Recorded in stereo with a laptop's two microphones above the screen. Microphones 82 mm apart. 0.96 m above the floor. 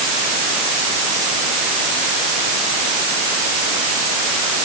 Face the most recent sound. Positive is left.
No sound to turn to.